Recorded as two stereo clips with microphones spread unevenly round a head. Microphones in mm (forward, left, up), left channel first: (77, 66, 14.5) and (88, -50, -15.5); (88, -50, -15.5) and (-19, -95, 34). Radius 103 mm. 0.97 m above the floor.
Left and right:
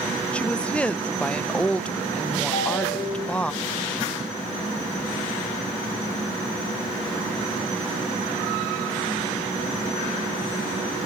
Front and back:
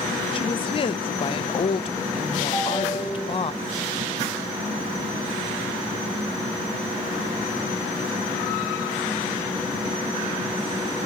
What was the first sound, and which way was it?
A woman speaking, 10° left.